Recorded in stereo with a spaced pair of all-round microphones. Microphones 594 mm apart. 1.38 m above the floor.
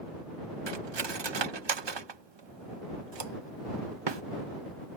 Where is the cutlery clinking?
45° right (ahead or behind).